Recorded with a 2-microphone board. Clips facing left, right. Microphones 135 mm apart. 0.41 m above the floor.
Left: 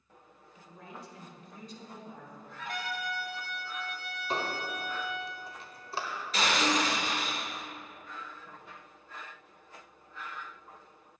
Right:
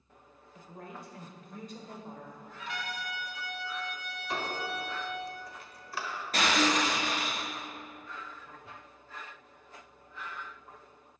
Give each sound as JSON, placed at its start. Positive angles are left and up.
{"t": 0.6, "sound": "a woman speaking", "side_deg": -50, "distance_m": 1.5}
{"t": 2.6, "sound": "a trumpet", "side_deg": 45, "distance_m": 1.6}
{"t": 4.3, "sound": "a squeak", "side_deg": 25, "distance_m": 1.2}
{"t": 6.3, "sound": "breaking glass", "side_deg": -50, "distance_m": 3.0}